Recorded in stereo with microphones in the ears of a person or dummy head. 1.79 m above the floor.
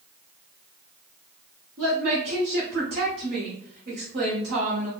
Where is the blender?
No blender in this recording.